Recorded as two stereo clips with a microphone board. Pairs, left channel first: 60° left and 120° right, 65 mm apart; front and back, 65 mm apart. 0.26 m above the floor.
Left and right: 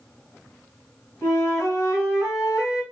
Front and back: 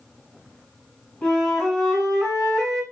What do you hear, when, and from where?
1.2 s a flute: 85° left, 2 m